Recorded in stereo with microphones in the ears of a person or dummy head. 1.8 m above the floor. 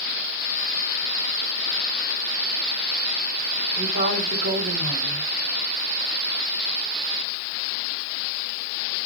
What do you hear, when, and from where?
3.8 s a woman speaking: 40° right (ahead or behind), 1.5 m